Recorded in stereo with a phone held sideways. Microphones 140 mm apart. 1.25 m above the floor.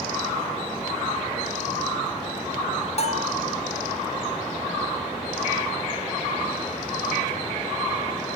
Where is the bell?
50° left (ahead or behind), 2 m.